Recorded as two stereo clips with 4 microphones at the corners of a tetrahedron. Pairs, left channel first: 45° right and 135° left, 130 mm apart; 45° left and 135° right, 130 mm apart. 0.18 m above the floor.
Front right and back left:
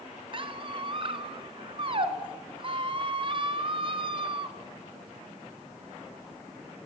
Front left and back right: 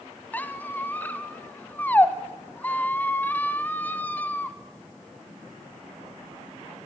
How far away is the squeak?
About 1.3 m.